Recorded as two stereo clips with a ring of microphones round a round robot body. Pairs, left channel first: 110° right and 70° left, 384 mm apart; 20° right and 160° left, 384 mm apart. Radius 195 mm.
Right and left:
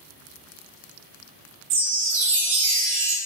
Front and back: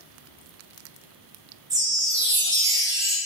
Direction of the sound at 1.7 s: 75° left.